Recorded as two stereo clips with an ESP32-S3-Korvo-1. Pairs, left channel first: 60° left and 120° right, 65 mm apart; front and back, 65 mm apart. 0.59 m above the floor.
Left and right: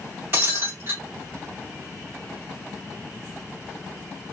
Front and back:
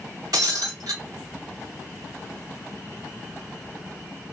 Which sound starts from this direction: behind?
Breaking glass, at 0.3 s.